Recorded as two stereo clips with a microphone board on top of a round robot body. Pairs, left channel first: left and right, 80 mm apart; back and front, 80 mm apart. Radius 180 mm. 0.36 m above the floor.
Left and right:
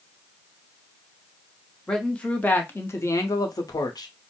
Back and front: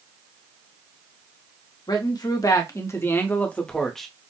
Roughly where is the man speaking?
Behind.